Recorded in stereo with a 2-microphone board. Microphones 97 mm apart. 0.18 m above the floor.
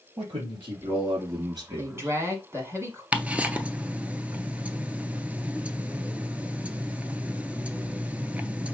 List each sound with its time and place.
0.2 s a man speaking: 65° right (ahead or behind), 3.5 m; by 2.1 s 30° right (ahead or behind), 1.8 m
1.8 s a woman speaking: 25° right (ahead or behind), 1.5 m
3.1 s ticking: 15° right (ahead or behind), 0.5 m